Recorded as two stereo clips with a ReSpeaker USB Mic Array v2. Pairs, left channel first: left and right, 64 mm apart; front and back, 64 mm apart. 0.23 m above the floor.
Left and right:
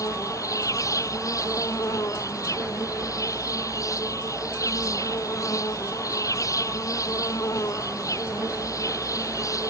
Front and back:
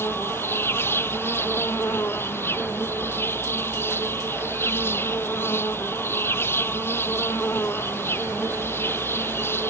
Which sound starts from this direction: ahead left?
An insect, at 0.0 s.